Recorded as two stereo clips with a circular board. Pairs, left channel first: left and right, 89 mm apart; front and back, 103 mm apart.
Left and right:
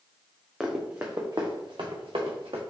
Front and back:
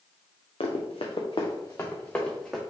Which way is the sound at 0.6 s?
5° right.